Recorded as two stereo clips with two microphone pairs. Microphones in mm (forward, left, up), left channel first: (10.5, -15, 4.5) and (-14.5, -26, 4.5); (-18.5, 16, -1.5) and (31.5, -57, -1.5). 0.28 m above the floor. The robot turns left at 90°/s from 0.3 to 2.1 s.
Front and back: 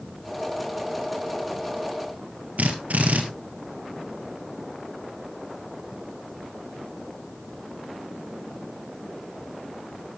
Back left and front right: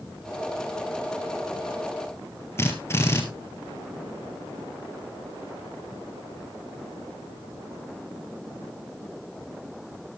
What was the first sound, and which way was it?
A drill, 175° right.